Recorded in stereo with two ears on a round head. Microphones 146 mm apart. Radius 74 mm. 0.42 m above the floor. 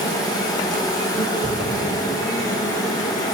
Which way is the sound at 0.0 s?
25° left (ahead or behind).